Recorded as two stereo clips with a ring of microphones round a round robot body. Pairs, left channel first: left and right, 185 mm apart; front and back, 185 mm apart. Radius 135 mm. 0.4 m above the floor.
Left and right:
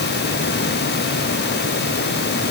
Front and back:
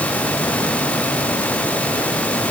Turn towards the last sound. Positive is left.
No sound to turn to.